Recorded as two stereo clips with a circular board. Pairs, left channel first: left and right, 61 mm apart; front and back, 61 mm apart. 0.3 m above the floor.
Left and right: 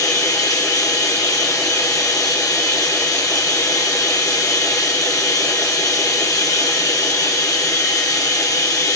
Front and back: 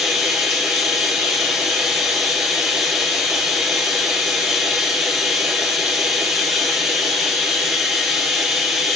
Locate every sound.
0.0 s running water: 85° left, 4 m